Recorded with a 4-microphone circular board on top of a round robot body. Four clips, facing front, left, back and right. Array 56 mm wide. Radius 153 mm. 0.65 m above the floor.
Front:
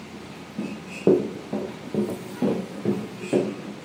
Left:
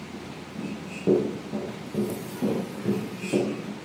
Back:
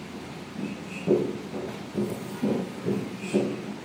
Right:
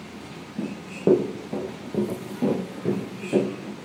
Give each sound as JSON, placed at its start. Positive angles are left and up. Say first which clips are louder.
{"t": 0.6, "sound": "running footsteps", "louder": "right 7 dB, front 9 dB", "azimuth_deg": -45, "distance_m": 1.8}